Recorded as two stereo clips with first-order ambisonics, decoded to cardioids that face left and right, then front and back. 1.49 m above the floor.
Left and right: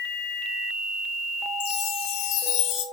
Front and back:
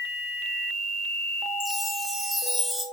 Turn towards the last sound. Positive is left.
turn(degrees=80)